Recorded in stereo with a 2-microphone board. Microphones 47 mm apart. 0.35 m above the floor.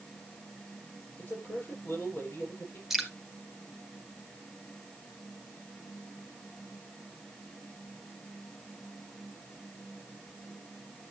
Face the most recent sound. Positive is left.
turn(degrees=-5)  # may be behind; listen again after turning